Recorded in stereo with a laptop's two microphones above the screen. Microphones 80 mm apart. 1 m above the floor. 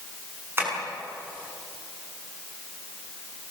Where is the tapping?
30° right (ahead or behind), 6.5 m.